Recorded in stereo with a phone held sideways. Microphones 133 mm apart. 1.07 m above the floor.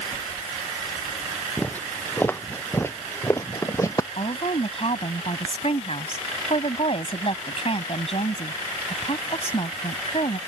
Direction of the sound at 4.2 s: 50° left (ahead or behind).